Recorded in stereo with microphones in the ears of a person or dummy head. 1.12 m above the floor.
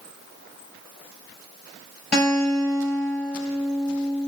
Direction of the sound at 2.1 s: 5° left (ahead or behind).